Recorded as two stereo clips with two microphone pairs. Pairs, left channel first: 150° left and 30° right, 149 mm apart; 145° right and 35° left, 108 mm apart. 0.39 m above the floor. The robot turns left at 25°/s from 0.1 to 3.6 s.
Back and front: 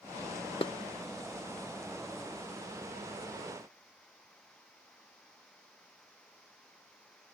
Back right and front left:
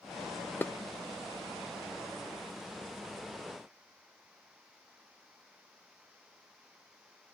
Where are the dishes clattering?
160° left, 0.7 m; by 0.7 s 155° left, 0.7 m.